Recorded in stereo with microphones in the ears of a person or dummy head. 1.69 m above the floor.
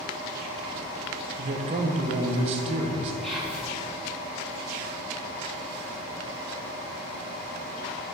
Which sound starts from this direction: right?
A man speaking, at 1.4 s.